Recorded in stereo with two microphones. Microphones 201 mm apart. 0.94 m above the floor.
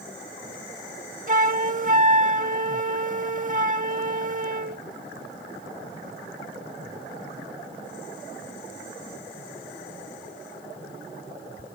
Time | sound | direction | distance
1.3 | a flute | 40° right (ahead or behind) | ?